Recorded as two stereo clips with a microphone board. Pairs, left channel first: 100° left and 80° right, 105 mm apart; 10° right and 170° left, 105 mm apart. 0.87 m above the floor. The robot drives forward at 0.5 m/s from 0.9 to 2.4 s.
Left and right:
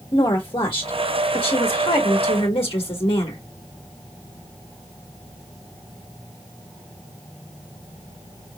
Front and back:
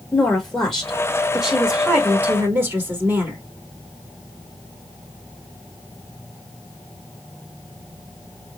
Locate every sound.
0.1 s a woman speaking: 70° left, 1.6 m; by 3.4 s 100° left, 1.6 m